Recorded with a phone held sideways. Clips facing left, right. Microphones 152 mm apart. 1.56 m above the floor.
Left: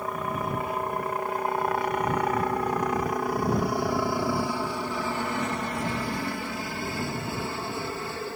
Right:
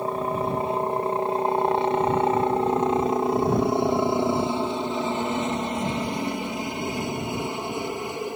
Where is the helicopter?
30° right (ahead or behind); by 8.4 s 15° right (ahead or behind).